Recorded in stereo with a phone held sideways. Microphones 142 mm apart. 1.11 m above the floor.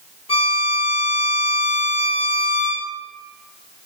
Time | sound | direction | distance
0.3 | a violin | 40° left (ahead or behind) | 0.8 m